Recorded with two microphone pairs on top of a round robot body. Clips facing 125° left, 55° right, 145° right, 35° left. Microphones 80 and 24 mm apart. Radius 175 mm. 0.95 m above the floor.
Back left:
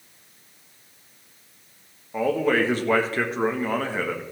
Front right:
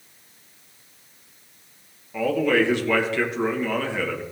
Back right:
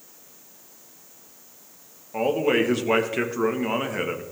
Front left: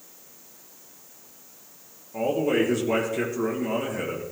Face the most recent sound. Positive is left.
turn(degrees=175)